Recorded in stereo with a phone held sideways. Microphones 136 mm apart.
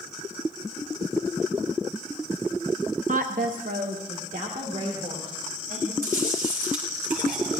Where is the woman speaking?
65° right (ahead or behind), 0.7 m; by 5.9 s 85° right, 3.5 m.